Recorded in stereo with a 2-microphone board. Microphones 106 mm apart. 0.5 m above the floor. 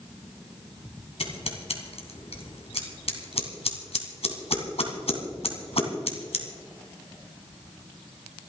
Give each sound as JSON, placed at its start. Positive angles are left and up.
{"t": 1.2, "sound": "scissors", "side_deg": 80, "distance_m": 2.5}